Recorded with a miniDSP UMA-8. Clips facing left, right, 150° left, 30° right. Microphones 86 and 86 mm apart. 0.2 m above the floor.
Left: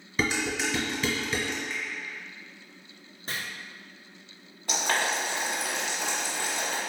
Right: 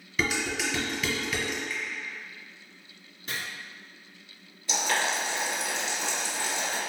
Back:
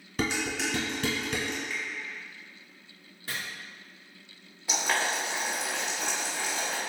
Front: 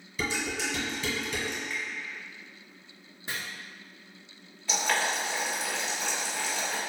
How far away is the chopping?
About 0.9 m.